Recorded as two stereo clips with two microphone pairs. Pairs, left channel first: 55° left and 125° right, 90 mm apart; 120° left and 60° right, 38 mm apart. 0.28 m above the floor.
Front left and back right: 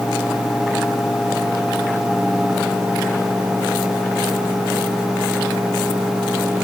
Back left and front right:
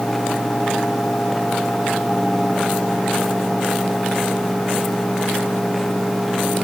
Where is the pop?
I don't hear a pop.